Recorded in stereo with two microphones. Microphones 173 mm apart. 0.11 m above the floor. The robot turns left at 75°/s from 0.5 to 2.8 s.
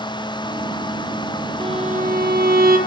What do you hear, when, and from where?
1.6 s a violin: 30° right, 3.5 m; by 2.8 s 120° right, 3.5 m